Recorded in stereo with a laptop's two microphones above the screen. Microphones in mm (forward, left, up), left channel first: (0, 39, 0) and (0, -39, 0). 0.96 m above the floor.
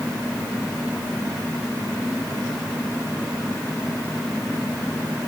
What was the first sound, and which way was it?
Only background noise.